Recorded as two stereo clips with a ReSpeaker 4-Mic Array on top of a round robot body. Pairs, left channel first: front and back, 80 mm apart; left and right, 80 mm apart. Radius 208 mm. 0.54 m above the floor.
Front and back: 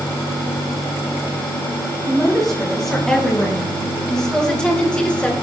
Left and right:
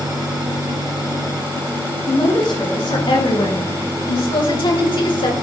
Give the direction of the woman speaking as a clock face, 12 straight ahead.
9 o'clock.